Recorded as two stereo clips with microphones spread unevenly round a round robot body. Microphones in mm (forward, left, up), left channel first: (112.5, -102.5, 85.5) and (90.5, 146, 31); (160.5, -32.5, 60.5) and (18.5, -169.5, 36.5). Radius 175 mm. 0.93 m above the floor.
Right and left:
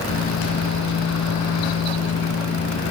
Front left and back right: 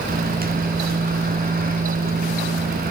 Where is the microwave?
100° right, 1.1 m.